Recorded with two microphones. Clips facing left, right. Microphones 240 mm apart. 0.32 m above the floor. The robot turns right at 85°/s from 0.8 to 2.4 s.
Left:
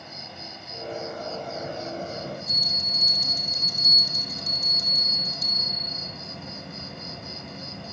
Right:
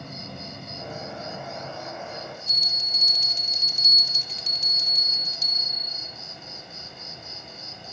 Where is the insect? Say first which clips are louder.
Right 5 dB; 60° right, 1.6 m; by 7.9 s 75° left, 1.6 m.